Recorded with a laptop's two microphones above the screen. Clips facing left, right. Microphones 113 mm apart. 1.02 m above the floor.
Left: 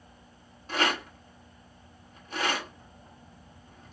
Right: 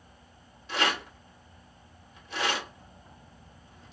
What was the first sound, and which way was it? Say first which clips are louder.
A rattle: left 1 dB; 45° left (ahead or behind).